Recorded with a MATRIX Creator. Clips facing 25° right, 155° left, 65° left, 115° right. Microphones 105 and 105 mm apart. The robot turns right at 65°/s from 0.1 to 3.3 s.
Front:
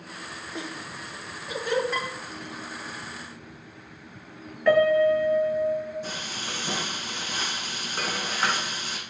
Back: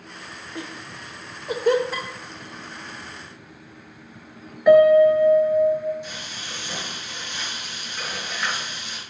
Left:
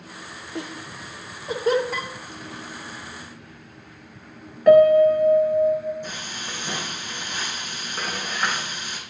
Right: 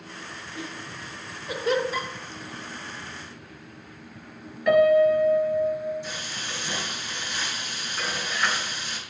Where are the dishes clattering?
70° left, 4.5 m; by 2.1 s 80° left, 4.5 m.